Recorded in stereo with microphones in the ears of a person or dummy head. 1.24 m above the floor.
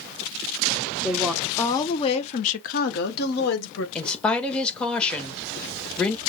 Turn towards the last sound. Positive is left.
turn(degrees=10)  # may be behind; listen again after turning